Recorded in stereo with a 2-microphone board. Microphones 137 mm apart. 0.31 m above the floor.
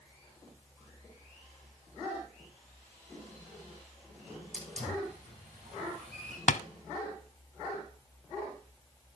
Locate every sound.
4.5 s a hiss: 60° right (ahead or behind), 8.5 m
6.5 s tapping: 65° left (ahead or behind), 0.6 m